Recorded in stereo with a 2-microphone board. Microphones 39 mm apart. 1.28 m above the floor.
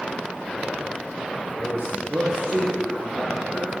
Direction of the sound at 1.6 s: 50° right (ahead or behind).